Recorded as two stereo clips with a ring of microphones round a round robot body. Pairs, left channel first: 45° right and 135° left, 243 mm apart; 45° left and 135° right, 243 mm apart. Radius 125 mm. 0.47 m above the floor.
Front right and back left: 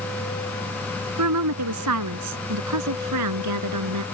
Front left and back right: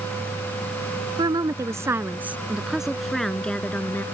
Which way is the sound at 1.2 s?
150° left.